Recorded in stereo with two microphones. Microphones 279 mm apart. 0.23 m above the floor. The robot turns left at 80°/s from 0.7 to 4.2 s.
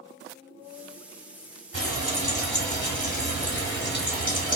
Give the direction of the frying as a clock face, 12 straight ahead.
4 o'clock.